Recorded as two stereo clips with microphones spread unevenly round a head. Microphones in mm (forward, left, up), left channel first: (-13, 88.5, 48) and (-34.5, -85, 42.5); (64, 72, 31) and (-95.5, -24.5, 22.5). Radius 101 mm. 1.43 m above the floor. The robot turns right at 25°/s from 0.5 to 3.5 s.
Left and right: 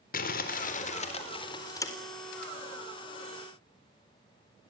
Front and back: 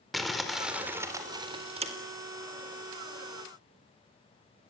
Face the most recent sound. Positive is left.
turn(degrees=-165)